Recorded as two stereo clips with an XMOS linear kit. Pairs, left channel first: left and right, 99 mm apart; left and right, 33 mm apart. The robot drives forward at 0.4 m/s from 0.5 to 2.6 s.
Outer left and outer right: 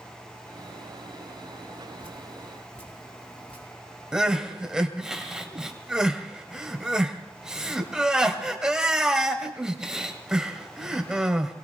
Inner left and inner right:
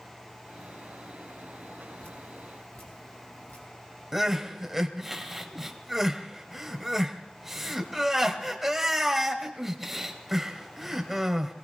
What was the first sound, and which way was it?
Dripping, 70° left (ahead or behind).